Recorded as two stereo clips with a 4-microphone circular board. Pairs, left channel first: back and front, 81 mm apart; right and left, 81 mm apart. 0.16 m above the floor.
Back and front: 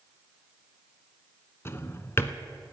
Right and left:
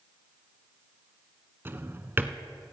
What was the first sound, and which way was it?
A drawer, 140° left.